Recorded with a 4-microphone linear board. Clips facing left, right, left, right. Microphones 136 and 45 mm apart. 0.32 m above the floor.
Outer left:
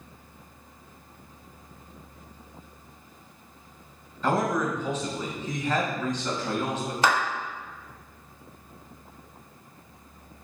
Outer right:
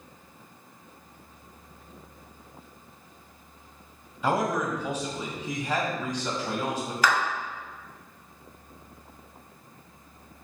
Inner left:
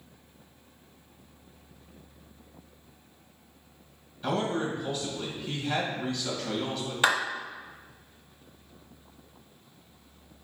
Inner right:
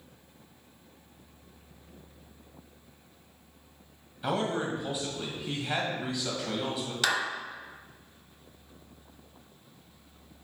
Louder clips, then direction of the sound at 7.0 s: Outer left 1 dB, inner left 4 dB; 25° left (ahead or behind).